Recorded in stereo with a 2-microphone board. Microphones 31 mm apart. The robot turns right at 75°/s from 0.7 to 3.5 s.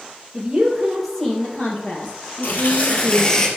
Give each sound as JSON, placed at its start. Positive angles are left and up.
{"t": 0.3, "sound": "a woman speaking", "azimuth_deg": -30, "distance_m": 3.0}
{"t": 2.4, "sound": "tearing paper", "azimuth_deg": 85, "distance_m": 1.9}